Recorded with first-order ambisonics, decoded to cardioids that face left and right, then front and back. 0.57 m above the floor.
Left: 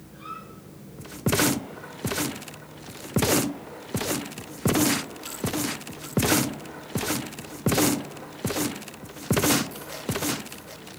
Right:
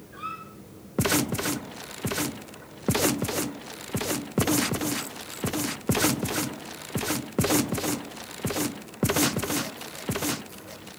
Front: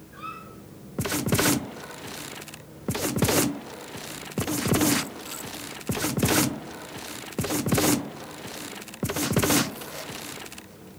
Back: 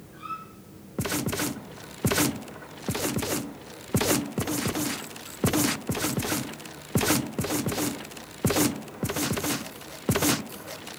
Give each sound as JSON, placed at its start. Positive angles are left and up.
{"t": 0.1, "sound": "a squeak", "azimuth_deg": -60, "distance_m": 4.0}